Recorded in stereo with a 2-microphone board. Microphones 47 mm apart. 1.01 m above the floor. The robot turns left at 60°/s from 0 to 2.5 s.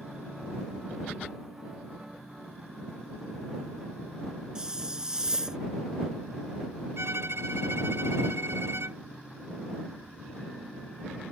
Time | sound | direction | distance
4.5 | a hiss | 15° right (ahead or behind) | ?
7.0 | a violin | 85° right | ?